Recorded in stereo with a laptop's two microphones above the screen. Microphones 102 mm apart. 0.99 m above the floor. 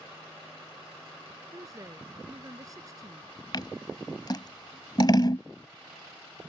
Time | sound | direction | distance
1.5 | a woman speaking | 35° right (ahead or behind) | ?
3.5 | scissors | 45° left (ahead or behind) | ?